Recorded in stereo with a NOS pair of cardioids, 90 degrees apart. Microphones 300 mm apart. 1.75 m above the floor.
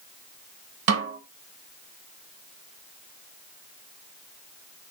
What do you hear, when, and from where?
0.9 s a snare drum: 60° right, 1.2 m